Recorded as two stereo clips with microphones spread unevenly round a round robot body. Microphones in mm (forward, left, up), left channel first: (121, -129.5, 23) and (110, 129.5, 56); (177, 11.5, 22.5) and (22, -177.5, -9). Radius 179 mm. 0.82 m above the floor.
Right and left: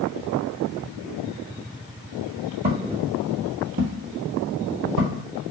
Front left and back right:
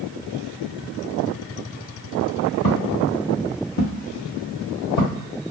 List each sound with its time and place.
2.6 s footsteps: 45° left, 1.7 m; by 5.3 s 105° left, 1.5 m